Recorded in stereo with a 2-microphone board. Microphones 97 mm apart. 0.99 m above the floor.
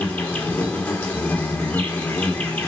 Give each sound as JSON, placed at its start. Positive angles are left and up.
{"t": 0.0, "sound": "an insect", "side_deg": 20, "distance_m": 3.5}